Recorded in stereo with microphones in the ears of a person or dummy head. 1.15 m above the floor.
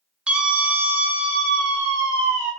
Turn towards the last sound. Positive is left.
turn(degrees=-5)  # may be behind; listen again after turning